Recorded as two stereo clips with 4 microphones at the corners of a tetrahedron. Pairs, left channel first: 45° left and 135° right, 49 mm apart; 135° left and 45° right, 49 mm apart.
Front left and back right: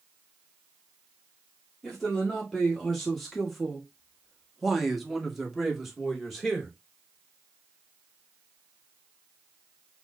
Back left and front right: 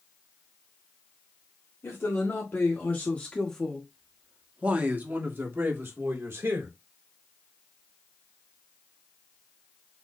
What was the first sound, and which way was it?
A man speaking, 130° left.